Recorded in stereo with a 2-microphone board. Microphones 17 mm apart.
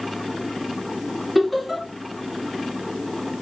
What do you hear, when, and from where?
1.4 s laughter: 5° right (ahead or behind), 1.8 m